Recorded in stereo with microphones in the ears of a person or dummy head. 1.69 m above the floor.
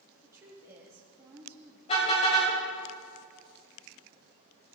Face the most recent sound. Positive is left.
turn(degrees=30)  # may be behind; listen again after turning